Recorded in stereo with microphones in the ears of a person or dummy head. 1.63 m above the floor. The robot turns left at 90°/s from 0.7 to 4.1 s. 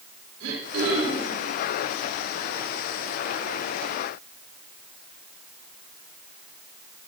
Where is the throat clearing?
80° right, 3.5 m; by 1.4 s 140° right, 3.5 m.